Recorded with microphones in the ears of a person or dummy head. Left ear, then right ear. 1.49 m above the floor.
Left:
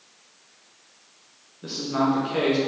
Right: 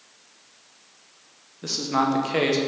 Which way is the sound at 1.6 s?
80° right.